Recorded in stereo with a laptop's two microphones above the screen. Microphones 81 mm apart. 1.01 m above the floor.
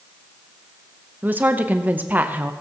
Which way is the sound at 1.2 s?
20° right (ahead or behind).